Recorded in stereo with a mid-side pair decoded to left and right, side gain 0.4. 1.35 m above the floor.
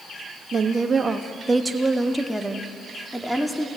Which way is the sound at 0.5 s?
50° right.